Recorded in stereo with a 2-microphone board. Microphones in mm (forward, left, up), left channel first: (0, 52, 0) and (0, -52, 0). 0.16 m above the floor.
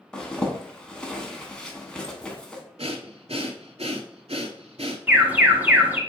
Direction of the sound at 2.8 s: 75° right (ahead or behind).